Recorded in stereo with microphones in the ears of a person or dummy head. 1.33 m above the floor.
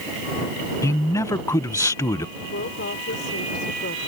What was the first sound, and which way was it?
A man speaking, 20° left (ahead or behind).